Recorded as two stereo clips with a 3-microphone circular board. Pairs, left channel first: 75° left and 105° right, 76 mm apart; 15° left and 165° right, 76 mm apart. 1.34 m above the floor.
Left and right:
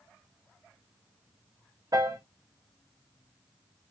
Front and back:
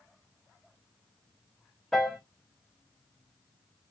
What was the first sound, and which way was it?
A piano, 70° right.